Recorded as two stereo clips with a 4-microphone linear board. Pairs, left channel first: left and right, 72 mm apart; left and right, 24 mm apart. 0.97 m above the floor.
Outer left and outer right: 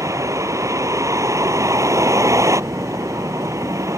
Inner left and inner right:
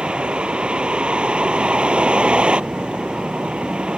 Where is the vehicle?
45° right (ahead or behind).